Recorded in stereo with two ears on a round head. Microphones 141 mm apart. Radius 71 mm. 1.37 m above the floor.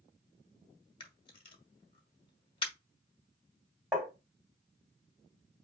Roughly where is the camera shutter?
Left.